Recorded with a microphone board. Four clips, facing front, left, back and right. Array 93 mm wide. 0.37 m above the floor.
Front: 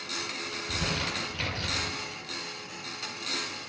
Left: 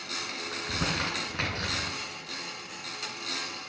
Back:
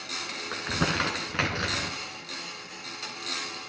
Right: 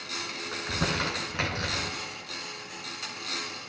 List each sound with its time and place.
0.5 s crumpling: 175° right, 2 m